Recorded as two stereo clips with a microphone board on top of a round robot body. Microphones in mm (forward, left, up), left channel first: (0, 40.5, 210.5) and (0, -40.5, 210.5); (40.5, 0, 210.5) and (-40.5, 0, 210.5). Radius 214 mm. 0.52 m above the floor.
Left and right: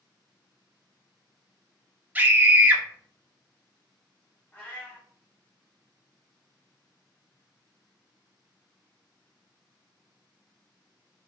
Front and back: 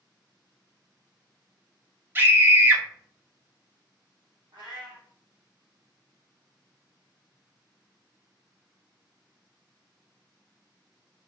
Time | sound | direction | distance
2.1 | a scream | 140° right | 1.2 m
4.5 | a cat meowing | 165° left | 1.1 m